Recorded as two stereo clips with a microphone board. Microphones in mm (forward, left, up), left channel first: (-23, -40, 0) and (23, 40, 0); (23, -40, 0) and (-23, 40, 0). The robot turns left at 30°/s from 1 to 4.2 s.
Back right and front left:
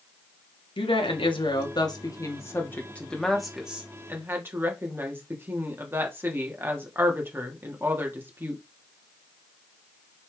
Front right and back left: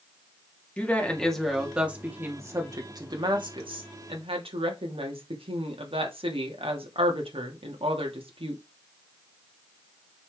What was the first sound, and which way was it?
A woman speaking, 140° right.